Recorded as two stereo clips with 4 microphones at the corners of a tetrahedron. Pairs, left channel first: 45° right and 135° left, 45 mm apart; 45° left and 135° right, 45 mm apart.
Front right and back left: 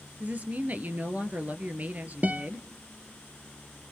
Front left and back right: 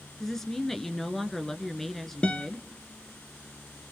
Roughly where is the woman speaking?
Behind left.